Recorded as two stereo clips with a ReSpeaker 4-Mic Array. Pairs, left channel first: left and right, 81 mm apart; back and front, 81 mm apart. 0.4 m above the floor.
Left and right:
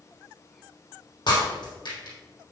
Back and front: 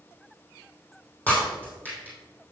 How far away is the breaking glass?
About 3 m.